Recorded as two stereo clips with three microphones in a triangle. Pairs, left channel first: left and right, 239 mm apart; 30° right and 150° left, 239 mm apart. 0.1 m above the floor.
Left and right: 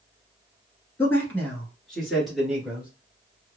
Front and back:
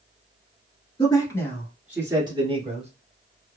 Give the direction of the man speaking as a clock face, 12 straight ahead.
11 o'clock.